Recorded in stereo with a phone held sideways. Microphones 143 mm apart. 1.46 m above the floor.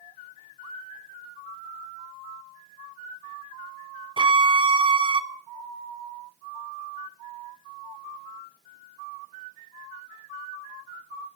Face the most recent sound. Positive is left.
turn(degrees=-35)  # may be behind; listen again after turning